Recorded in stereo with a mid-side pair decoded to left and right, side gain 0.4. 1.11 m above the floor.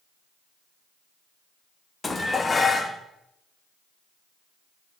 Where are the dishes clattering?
30° left, 1.2 m.